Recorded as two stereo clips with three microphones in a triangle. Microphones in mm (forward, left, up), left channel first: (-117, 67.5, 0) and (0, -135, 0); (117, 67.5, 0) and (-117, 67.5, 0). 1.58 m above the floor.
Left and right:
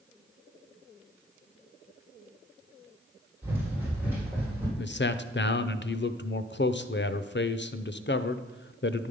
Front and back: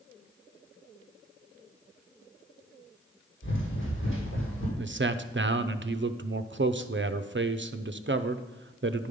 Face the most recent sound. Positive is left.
turn(degrees=155)